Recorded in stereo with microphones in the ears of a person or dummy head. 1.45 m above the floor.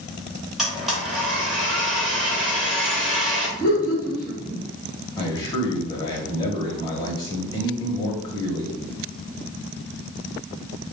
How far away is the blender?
About 1.5 m.